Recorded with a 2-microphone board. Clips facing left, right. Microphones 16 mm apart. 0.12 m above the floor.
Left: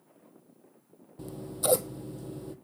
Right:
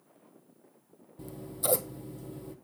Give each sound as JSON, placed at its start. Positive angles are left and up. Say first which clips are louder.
{"t": 1.2, "sound": "scissors", "louder": "left 3 dB", "side_deg": 20, "distance_m": 0.7}